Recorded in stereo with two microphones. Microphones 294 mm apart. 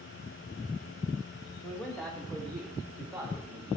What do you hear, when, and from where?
1.6 s a man speaking: 5° left (ahead or behind), 2 m; by 3.8 s 5° right (ahead or behind), 3.5 m